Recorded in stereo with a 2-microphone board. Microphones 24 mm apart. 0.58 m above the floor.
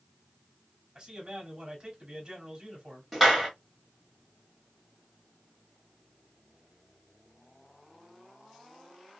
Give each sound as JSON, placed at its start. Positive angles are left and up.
{"t": 0.9, "sound": "a man speaking", "side_deg": -30, "distance_m": 1.6}
{"t": 3.1, "sound": "a clap", "side_deg": -5, "distance_m": 1.6}